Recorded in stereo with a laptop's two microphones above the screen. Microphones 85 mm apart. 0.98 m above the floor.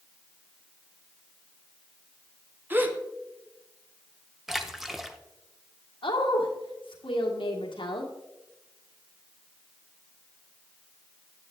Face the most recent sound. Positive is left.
turn(degrees=80)